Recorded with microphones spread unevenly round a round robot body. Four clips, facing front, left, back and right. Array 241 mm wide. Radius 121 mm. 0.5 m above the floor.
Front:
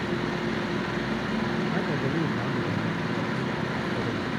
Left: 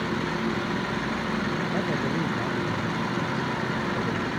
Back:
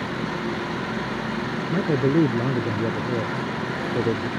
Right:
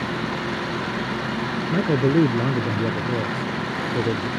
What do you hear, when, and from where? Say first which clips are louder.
1.7 s a man speaking: right 7 dB, back 7 dB; 125° right; by 4.3 s 145° right